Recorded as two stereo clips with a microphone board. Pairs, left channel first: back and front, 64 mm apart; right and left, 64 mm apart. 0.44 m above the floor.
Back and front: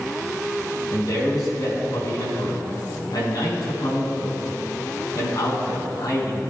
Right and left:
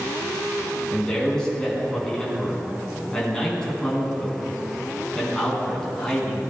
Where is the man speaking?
165° right, 3.5 m.